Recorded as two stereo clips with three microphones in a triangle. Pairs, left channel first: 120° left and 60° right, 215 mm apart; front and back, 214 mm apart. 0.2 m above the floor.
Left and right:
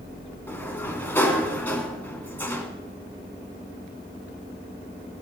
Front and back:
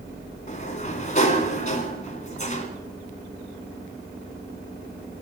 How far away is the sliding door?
About 2.5 m.